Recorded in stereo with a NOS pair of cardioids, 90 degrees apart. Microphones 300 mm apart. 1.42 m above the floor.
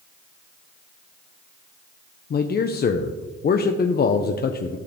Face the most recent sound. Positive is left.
turn(degrees=35)